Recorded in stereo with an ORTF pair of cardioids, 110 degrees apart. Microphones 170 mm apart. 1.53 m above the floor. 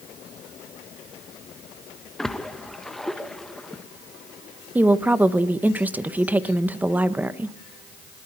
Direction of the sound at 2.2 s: 5° left.